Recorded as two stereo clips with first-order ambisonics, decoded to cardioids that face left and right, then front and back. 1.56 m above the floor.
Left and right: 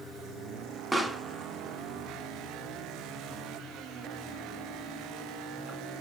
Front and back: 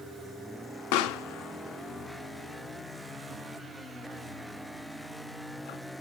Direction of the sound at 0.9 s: 10° right.